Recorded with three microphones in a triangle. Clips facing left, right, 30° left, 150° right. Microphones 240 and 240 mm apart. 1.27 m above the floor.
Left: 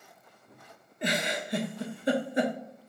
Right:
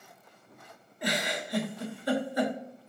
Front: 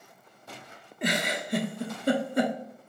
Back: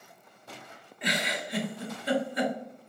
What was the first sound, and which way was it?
A giggle, 35° left.